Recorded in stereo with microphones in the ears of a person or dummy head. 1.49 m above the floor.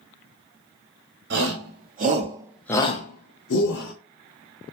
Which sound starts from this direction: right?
A shout, at 1.3 s.